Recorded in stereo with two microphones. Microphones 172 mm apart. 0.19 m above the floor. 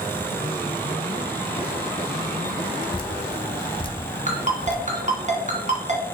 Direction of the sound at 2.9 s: 30° left (ahead or behind).